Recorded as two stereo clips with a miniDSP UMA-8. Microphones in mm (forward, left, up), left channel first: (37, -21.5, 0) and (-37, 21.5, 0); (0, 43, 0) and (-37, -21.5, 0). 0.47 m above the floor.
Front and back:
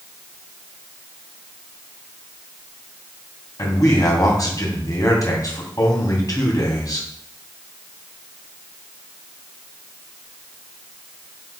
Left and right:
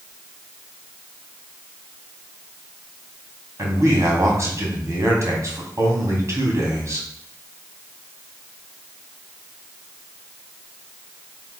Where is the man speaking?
75° right, 2.5 m.